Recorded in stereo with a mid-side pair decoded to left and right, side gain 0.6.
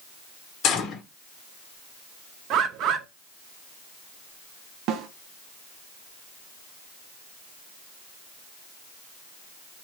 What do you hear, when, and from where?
0.6 s a gunshot: 60° left, 1.1 m
2.5 s a bird: 60° right, 0.6 m
4.9 s a snare drum: 65° right, 0.5 m